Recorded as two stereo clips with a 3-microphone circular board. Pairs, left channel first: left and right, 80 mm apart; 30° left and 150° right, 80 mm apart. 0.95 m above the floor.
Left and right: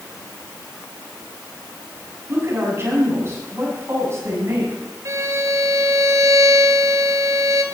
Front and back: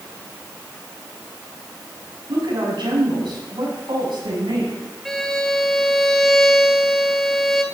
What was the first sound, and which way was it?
A woman speaking, 145° right.